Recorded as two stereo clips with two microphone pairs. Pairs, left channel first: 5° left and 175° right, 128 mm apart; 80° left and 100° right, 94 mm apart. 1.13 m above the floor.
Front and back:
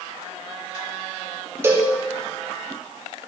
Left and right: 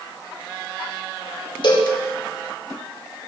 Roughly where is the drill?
I don't hear a drill.